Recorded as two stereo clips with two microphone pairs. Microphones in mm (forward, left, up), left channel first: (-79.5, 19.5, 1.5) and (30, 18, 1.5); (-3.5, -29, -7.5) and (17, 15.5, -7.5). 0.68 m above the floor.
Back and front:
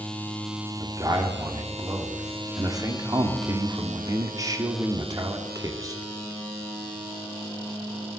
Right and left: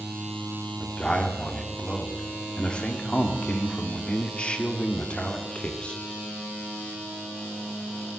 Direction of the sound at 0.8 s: 50° right.